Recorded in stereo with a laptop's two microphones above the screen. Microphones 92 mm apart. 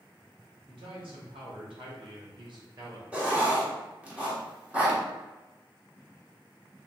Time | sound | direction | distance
0.7 | a man speaking | 70° right (ahead or behind) | 1.8 m
3.1 | writing | 15° right (ahead or behind) | 1.3 m